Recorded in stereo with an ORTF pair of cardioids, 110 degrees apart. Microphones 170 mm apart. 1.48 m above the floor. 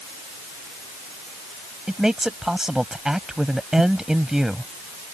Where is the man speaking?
5° right.